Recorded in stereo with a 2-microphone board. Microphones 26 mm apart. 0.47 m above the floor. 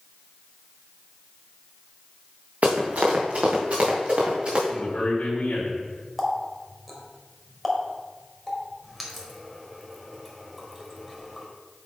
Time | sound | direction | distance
2.6 | running footsteps | 80° right | 2.5 m
4.7 | a man speaking | 60° left (ahead or behind) | 2 m
6.2 | a running tap | 5° left (ahead or behind) | 1.5 m